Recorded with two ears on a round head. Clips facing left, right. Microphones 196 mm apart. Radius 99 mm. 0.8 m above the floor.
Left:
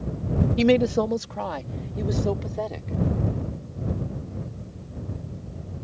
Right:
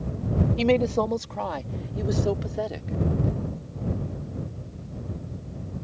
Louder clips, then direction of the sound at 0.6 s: Left 3 dB; 20° left (ahead or behind).